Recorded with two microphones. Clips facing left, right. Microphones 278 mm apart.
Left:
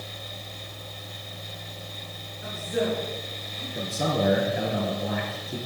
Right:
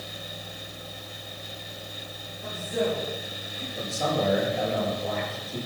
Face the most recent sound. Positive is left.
turn(degrees=65)  # may be behind; listen again after turning